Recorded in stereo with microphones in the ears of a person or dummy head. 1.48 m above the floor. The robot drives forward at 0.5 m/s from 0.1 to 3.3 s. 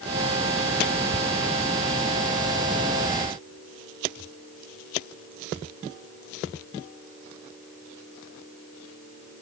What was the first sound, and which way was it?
Only background noise.